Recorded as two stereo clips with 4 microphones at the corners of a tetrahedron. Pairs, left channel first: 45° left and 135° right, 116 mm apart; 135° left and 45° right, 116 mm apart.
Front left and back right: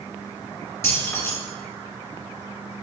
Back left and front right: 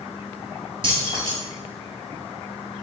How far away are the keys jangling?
About 1.3 m.